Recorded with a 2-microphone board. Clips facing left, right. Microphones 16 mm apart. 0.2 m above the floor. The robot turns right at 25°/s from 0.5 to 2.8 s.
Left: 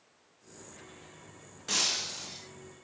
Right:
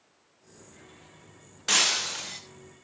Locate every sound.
1.7 s breaking glass: 40° right (ahead or behind), 1.5 m; by 2.4 s 60° right (ahead or behind), 1.5 m